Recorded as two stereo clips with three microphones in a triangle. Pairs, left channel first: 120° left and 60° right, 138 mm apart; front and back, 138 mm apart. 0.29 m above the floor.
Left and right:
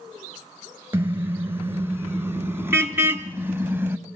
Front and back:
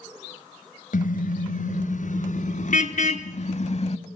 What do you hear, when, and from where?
0.9 s a car horn: 15° left, 2.5 m; by 4.0 s 10° left, 0.9 m